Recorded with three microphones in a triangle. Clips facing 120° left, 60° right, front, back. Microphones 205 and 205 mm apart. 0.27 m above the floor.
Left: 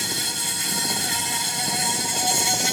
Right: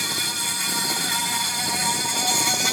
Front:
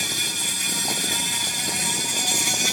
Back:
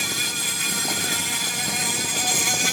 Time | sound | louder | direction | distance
0.0 | an insect | left 1 dB, back 1 dB | straight behind | ?